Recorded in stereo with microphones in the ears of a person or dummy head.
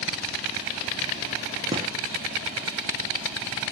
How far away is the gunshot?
About 0.7 m.